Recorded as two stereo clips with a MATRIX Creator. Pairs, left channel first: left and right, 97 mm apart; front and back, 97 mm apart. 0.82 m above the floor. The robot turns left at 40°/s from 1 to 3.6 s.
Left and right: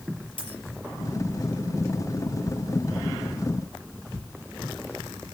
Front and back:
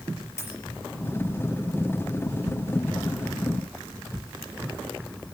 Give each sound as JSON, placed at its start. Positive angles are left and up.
{"t": 0.4, "sound": "a dropped coin", "azimuth_deg": 65, "distance_m": 5.0}